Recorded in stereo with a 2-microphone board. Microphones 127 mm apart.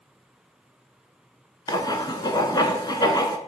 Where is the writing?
35° left (ahead or behind), 0.8 m.